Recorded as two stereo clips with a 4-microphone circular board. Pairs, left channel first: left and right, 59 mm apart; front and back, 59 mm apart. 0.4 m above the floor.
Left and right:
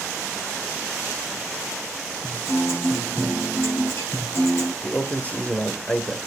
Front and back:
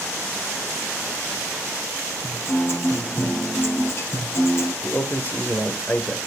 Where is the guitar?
50° left, 5.5 m.